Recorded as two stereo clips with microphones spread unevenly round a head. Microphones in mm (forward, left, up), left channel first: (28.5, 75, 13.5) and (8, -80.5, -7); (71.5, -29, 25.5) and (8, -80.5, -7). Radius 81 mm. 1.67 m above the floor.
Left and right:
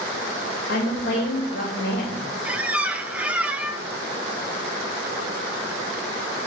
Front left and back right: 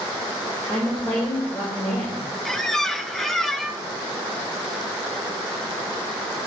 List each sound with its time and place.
0.7 s a woman speaking: 120° left, 2.5 m
2.5 s a squeak: 10° right, 0.6 m